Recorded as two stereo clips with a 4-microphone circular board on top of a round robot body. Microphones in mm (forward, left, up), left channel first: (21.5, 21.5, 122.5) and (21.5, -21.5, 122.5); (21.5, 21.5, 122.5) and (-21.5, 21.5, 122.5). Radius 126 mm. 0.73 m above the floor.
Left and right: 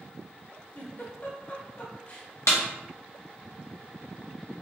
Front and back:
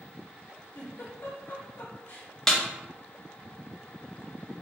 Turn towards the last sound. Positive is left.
turn(degrees=80)